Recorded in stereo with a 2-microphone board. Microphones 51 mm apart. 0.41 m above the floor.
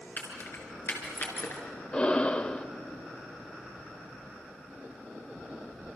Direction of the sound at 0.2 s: 45° left (ahead or behind).